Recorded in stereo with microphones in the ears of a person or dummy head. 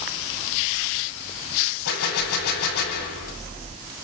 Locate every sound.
1.9 s a gunshot: 80° left, 8 m